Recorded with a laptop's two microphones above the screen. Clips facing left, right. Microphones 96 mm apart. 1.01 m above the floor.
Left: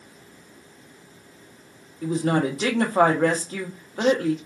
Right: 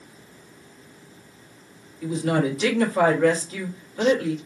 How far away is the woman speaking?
About 0.8 m.